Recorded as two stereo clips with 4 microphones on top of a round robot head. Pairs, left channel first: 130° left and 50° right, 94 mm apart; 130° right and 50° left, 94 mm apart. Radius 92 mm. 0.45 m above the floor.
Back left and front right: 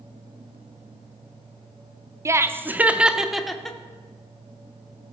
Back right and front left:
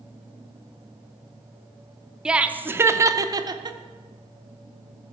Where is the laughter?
30° right, 0.9 m; by 3.8 s 50° left, 1.1 m.